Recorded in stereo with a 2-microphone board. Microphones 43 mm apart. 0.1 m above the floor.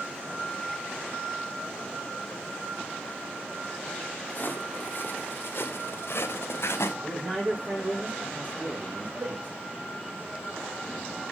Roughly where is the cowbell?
Right.